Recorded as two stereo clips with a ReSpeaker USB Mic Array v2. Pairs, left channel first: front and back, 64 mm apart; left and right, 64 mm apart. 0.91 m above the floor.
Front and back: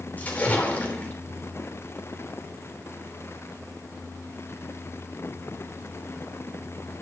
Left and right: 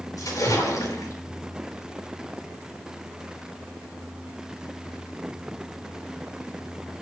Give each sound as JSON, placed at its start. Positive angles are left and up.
{"t": 0.2, "sound": "a splash", "azimuth_deg": 65, "distance_m": 4.0}